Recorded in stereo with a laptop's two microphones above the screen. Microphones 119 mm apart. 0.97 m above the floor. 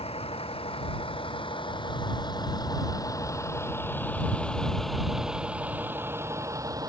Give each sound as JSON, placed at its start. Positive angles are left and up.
{"t": 0.0, "sound": "a vehicle", "side_deg": 55}